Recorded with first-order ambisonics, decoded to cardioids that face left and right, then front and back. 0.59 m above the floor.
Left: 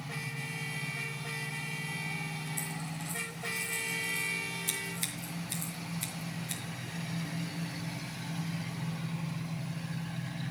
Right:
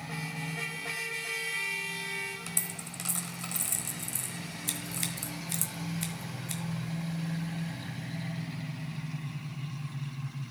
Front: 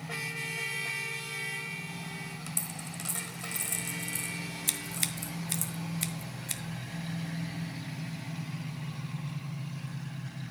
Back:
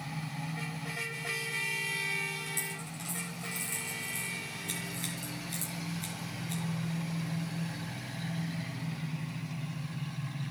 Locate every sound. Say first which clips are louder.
2.5 s a dropped coin: right 1 dB, back 3 dB; 65° right, 1.2 m
4.7 s scissors: even, front 3 dB; 5° right, 1.2 m